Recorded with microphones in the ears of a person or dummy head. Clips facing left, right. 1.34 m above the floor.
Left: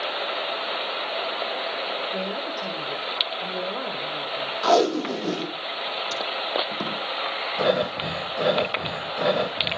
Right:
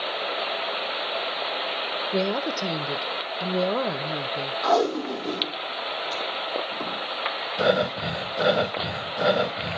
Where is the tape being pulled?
35° left (ahead or behind), 1.3 m.